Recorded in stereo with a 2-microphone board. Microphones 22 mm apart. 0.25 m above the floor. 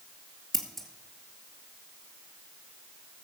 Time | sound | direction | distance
0.5 | scissors | 10° left (ahead or behind) | 2 m